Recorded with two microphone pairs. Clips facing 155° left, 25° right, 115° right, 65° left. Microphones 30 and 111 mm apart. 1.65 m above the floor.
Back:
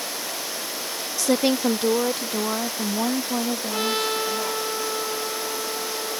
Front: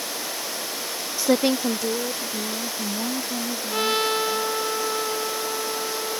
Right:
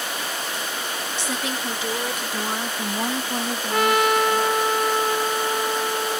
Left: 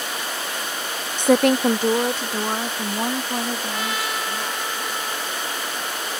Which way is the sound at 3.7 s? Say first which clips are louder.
Front 4 dB, right 8 dB; 105° right.